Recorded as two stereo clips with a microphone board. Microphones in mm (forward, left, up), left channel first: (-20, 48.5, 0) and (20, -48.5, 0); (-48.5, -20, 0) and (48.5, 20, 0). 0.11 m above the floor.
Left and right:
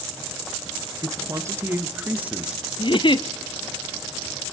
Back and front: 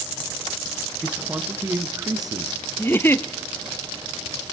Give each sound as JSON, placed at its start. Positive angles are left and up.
{"t": 1.0, "sound": "a man speaking", "azimuth_deg": -55, "distance_m": 2.0}
{"t": 2.8, "sound": "a giggle", "azimuth_deg": 135, "distance_m": 0.7}